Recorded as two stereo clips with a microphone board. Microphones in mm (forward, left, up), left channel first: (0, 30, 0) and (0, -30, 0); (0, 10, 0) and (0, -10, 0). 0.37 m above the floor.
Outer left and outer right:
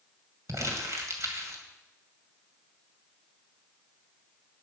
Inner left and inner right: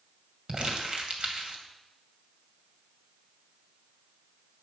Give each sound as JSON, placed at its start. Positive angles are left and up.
{"t": 0.5, "sound": "crumpling", "side_deg": -55, "distance_m": 2.0}